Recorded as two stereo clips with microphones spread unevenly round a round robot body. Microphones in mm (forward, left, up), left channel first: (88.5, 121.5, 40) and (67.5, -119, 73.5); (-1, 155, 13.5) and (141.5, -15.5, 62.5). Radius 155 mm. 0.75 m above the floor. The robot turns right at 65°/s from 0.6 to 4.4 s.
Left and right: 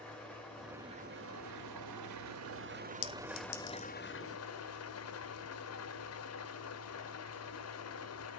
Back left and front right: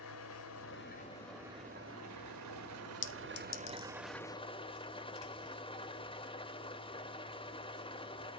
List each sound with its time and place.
0.0 s an engine running: 175° left, 1.5 m; by 8.4 s 60° left, 1.5 m
3.0 s a clink: 95° left, 1.3 m; by 3.9 s 150° left, 1.3 m